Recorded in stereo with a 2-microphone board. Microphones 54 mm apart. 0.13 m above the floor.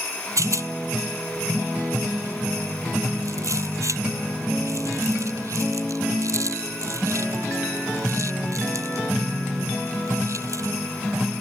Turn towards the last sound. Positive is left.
turn(degrees=-65)  # may be behind; listen again after turning